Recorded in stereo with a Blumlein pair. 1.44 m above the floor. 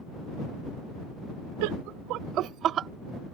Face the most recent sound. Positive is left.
turn(degrees=-25)